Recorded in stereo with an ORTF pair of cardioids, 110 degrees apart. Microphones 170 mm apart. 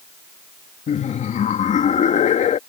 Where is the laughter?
45° left.